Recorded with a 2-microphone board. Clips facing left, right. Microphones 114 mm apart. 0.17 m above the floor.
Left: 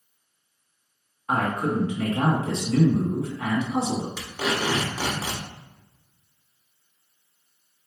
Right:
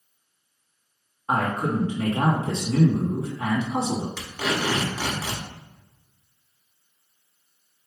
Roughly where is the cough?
I don't hear a cough.